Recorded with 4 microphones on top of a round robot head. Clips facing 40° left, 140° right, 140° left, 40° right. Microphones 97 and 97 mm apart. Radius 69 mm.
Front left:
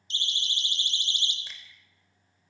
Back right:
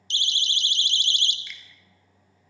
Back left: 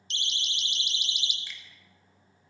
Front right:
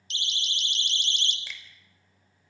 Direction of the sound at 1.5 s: 20° right.